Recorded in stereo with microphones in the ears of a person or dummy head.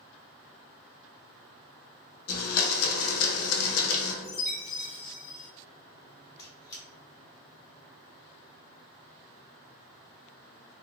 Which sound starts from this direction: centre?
A squeak, at 6.4 s.